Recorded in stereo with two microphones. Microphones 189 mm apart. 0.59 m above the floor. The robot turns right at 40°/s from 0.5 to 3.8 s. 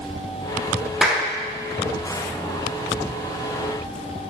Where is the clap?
5° right (ahead or behind), 0.6 m; by 1.3 s 10° right (ahead or behind), 0.6 m.